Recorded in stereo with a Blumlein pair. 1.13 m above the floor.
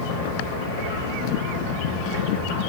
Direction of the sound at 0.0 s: 60° left.